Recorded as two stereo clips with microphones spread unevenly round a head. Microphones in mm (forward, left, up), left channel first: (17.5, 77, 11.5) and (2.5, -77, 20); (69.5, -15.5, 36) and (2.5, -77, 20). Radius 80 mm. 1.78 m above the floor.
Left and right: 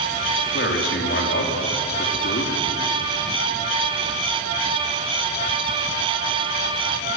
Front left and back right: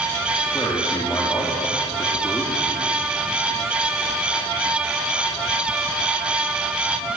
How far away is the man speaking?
About 4 m.